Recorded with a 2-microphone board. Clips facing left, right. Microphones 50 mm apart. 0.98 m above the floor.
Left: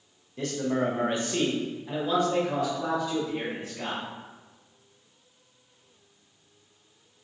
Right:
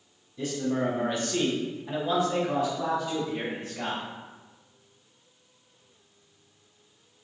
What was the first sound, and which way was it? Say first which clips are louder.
A man speaking: left 1 dB; 55° left (ahead or behind).